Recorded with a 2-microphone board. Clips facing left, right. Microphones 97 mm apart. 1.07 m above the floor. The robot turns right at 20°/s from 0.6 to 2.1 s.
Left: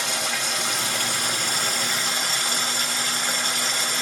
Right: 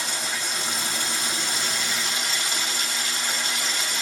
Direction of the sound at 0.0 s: 115° left.